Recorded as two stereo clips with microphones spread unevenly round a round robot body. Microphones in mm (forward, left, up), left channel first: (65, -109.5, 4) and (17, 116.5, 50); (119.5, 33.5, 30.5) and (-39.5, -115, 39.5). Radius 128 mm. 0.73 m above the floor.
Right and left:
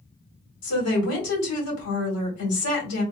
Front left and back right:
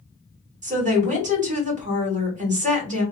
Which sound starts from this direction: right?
A woman speaking, at 0.6 s.